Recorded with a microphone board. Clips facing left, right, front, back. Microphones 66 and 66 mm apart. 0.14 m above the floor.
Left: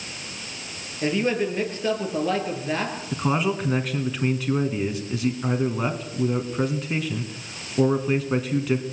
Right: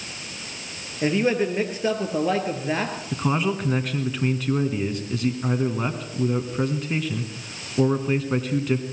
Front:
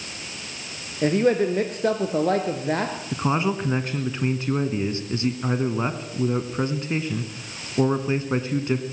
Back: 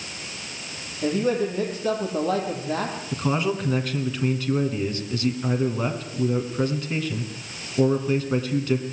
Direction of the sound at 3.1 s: 5° left.